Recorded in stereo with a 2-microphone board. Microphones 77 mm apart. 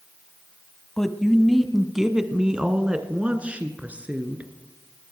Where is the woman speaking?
5° left (ahead or behind), 1.2 m; by 4.5 s 20° right (ahead or behind), 3 m.